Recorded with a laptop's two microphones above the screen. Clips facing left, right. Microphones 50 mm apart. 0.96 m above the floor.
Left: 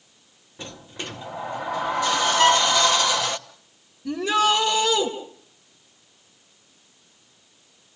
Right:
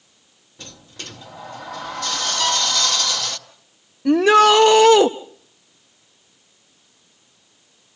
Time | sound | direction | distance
0.6 | a sliding door | 20° left (ahead or behind) | 0.7 m
2.4 | a violin | 40° left (ahead or behind) | 1.4 m
4.0 | a shout | 70° right (ahead or behind) | 0.9 m